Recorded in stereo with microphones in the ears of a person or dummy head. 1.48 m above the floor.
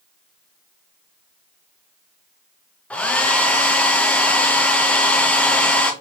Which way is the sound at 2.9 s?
5° left (ahead or behind).